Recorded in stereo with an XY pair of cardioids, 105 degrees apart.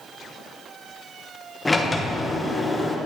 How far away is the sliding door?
About 1.0 m.